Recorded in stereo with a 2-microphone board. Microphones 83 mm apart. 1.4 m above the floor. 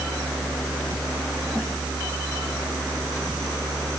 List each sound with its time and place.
Only background noise.